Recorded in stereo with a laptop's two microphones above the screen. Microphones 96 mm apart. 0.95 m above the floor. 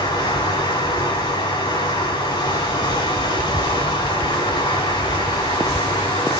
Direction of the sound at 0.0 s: 45° left (ahead or behind).